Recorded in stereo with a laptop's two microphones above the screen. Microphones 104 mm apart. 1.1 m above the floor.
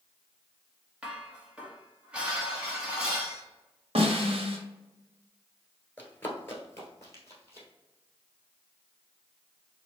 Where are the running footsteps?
15° left (ahead or behind), 1.1 m; by 7.7 s 30° left (ahead or behind), 1.9 m.